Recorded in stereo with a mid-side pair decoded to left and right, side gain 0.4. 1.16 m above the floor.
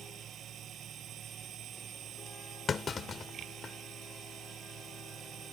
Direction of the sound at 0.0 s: 70° right.